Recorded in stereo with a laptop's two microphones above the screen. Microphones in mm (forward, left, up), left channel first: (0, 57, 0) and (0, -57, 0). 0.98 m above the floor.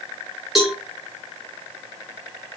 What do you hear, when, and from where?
0.6 s a cowbell: 5° right (ahead or behind), 0.8 m